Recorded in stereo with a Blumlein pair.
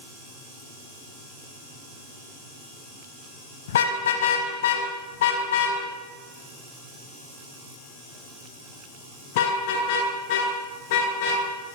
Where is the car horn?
60° left, 5 m; by 11.4 s 50° left, 12.5 m.